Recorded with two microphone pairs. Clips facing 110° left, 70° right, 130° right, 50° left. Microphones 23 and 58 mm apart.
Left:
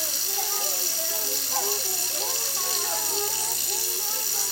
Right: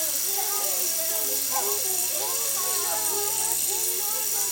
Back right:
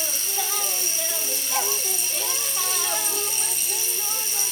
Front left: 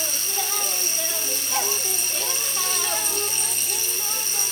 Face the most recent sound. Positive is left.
turn(degrees=70)